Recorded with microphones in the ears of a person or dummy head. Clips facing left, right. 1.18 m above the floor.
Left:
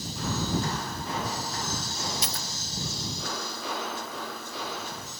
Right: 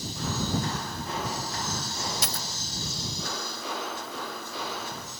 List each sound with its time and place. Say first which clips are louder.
2.2 s a dropped coin: right 1 dB; 55° right (ahead or behind)